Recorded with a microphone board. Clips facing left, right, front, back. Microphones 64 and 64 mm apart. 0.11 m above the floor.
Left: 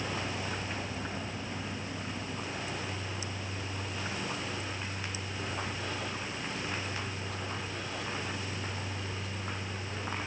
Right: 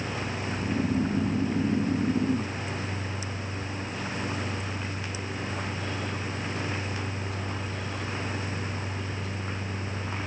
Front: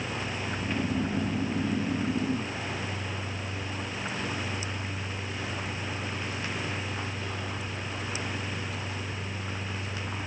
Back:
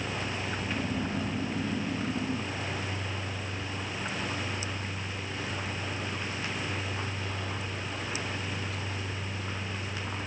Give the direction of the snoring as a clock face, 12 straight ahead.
2 o'clock.